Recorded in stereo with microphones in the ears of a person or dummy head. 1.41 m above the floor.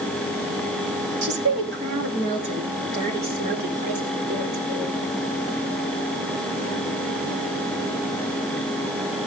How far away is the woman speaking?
About 3 m.